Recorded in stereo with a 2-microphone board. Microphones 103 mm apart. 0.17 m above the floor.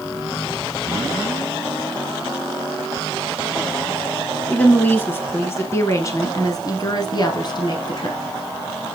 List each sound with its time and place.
4.5 s a woman speaking: 15° left (ahead or behind), 1.8 m; by 8.2 s 45° left (ahead or behind), 1.5 m